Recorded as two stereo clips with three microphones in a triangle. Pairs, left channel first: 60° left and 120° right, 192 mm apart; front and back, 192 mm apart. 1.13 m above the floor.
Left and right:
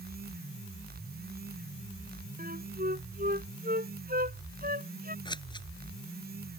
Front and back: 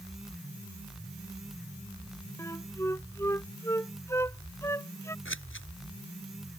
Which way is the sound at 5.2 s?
10° right.